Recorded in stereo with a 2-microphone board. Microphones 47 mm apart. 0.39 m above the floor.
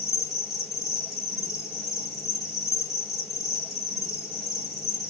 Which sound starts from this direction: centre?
An insect, at 0.0 s.